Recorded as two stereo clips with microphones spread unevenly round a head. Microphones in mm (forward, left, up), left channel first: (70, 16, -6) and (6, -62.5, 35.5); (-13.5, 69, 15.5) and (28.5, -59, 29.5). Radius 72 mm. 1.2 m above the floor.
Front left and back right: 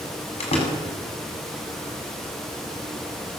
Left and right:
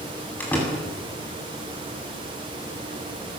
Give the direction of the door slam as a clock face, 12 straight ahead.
11 o'clock.